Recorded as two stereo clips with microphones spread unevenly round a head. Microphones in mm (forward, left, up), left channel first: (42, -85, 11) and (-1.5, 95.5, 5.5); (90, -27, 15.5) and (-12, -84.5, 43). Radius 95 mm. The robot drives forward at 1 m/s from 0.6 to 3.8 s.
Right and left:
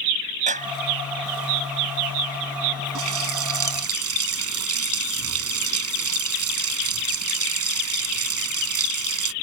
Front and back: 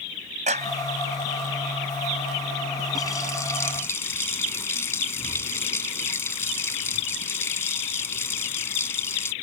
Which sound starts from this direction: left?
A running tap, at 3.0 s.